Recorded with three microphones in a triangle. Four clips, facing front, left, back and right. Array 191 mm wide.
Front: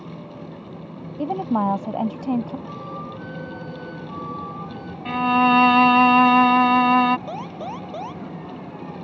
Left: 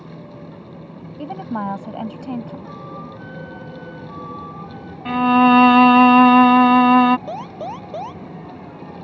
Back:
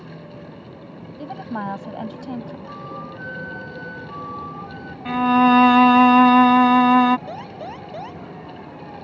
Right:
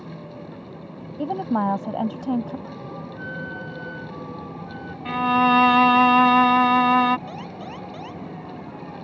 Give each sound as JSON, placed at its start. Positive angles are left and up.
{"t": 1.2, "sound": "a woman speaking", "azimuth_deg": -35}
{"t": 2.7, "sound": "a flute", "azimuth_deg": 160}
{"t": 5.0, "sound": "a violin", "azimuth_deg": 115}
{"t": 7.3, "sound": "an alarm", "azimuth_deg": 95}